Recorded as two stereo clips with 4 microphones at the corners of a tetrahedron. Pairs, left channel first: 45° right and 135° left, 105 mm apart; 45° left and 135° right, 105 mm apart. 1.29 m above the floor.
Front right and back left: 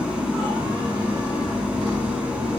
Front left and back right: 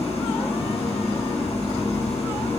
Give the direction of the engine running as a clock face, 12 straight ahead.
10 o'clock.